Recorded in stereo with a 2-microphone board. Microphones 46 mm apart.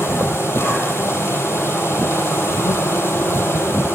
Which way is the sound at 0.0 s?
60° left (ahead or behind).